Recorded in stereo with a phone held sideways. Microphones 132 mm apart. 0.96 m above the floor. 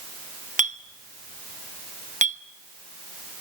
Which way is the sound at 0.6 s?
70° right (ahead or behind).